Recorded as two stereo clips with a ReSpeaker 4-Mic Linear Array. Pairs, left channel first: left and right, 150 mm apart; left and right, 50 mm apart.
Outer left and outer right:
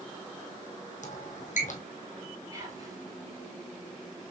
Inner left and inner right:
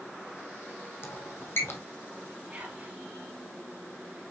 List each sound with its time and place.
1.0 s a squeak: 55° left (ahead or behind), 1.0 m
2.5 s whispering: 25° right (ahead or behind), 2.5 m